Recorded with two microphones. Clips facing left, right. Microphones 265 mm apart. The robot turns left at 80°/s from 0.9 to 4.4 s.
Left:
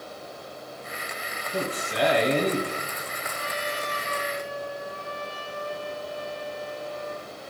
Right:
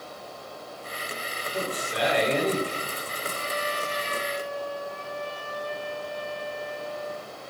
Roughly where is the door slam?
No door slam in this recording.